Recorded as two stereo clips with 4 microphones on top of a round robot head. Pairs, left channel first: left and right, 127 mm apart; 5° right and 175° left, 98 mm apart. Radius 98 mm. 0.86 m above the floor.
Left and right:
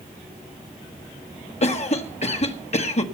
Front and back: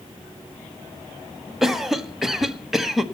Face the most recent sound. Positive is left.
turn(degrees=90)